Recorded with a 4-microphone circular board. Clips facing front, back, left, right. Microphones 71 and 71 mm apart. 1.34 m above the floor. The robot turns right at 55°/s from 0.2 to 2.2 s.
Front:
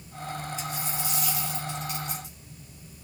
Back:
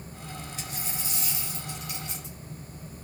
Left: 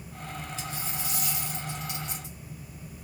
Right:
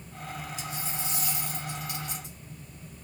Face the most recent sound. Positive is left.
turn(degrees=-80)